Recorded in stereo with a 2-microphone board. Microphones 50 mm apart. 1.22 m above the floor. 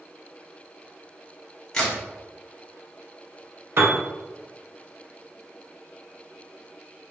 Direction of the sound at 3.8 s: 50° right (ahead or behind).